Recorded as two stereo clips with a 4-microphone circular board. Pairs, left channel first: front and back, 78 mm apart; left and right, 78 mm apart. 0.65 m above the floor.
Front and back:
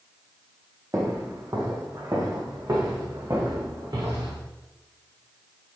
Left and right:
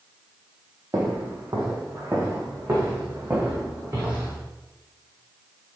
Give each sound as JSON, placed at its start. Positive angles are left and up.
{"t": 0.9, "sound": "footsteps", "azimuth_deg": -135, "distance_m": 1.9}